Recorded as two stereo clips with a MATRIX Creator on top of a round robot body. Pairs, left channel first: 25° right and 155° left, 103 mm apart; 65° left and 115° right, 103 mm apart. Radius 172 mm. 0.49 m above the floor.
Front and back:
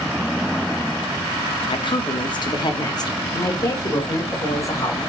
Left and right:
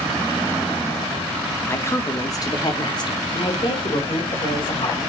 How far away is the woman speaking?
About 1.2 m.